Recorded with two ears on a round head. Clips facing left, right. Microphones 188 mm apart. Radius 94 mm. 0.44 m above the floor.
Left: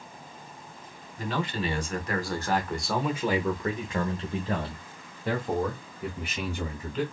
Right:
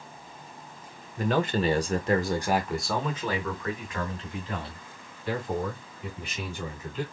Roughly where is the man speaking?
Right.